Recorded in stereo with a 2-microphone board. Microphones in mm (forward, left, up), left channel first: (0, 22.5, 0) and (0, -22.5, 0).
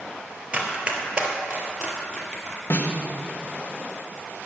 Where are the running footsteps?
25° right (ahead or behind), 1.9 m; by 2.6 s 15° right (ahead or behind), 2.5 m.